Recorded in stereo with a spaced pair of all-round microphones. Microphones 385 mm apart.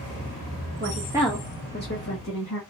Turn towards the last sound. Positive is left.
turn(degrees=50)  # may be behind; listen again after turning